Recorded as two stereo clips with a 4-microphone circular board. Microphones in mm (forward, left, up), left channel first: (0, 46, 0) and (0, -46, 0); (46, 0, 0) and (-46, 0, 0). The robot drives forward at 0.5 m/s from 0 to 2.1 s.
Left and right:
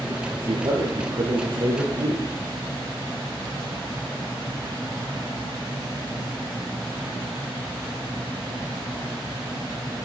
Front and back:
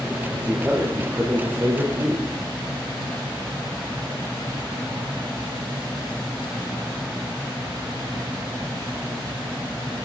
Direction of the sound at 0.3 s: 105° right.